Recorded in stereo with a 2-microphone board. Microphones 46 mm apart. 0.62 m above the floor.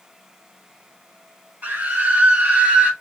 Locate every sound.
1.6 s a scream: 45° right (ahead or behind), 1.5 m; by 2.9 s 35° right (ahead or behind), 1.9 m